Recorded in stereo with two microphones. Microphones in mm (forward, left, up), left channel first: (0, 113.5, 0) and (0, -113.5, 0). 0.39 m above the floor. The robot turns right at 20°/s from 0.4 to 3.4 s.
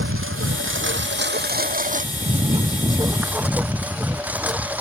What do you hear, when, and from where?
0.0 s a lawn mower: 65° right; by 4.8 s 5° right